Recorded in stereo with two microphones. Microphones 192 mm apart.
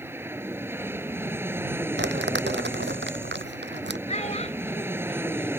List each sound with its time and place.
0.0 s an aircraft: 10° right (ahead or behind)
2.0 s crumpling: 75° right (ahead or behind)
4.1 s a child speaking: 35° left (ahead or behind)